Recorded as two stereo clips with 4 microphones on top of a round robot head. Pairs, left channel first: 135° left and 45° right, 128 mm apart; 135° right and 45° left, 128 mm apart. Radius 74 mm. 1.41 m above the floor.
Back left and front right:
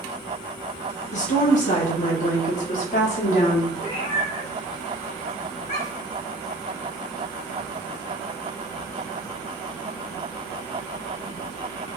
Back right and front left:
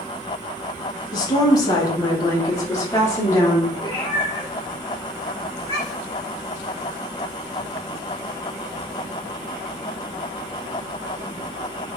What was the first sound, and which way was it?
A woman speaking, 165° left.